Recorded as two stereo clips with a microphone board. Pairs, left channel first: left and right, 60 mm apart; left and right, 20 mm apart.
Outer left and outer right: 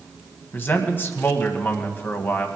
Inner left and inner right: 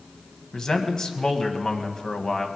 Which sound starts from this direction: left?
A man speaking, at 0.5 s.